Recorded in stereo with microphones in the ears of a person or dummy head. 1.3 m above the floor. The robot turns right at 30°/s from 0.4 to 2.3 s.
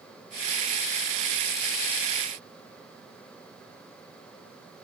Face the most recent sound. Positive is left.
No sound to turn to.